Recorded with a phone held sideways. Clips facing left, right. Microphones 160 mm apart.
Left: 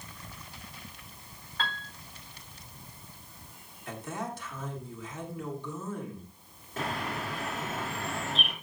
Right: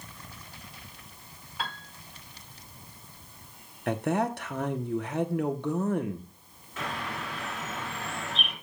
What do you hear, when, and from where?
1.6 s a piano: 10° right (ahead or behind), 3 m
3.9 s a man speaking: 70° right (ahead or behind), 1.0 m
6.8 s a bird: 40° left (ahead or behind), 3.5 m